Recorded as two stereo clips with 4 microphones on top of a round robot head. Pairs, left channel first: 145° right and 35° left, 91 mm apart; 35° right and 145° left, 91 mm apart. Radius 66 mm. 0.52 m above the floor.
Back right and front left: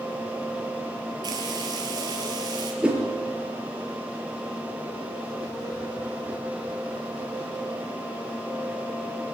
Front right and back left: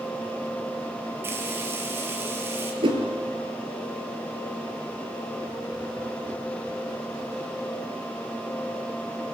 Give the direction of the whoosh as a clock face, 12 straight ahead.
8 o'clock.